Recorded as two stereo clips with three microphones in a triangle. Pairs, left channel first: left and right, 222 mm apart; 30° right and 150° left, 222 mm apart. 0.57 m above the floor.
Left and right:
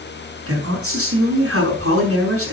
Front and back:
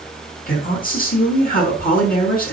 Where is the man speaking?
80° right, 5.5 m.